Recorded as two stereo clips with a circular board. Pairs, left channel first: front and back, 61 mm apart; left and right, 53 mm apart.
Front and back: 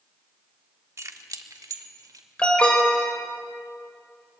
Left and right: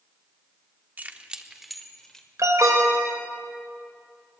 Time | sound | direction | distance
1.0 | keys jangling | 145° right | 1.5 m
2.4 | an alarm | 75° right | 4.5 m